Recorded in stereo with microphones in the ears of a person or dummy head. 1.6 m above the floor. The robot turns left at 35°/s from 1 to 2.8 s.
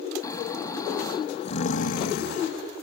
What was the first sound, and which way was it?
Snoring, 155° left.